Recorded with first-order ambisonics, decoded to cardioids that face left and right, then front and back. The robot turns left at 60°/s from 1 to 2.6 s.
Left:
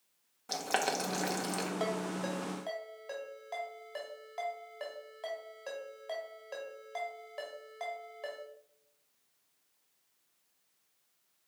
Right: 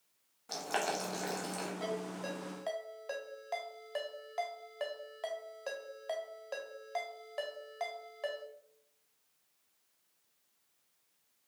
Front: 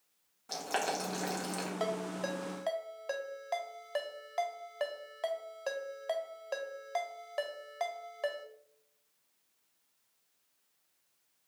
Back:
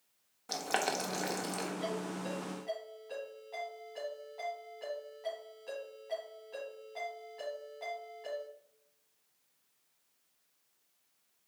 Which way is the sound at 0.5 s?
130° left.